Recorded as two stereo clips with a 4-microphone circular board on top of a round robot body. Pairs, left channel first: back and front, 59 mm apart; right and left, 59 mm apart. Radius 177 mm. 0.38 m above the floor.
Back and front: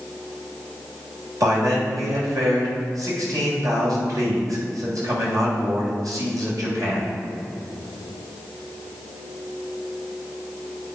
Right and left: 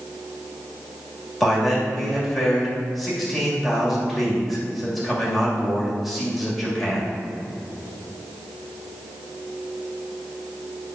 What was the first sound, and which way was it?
A man speaking, straight ahead.